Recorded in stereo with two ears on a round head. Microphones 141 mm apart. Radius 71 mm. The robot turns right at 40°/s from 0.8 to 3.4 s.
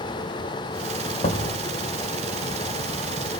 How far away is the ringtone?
I don't hear a ringtone.